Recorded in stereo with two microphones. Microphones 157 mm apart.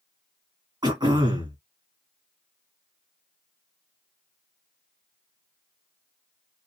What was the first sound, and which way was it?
Throat clearing, 30° right (ahead or behind).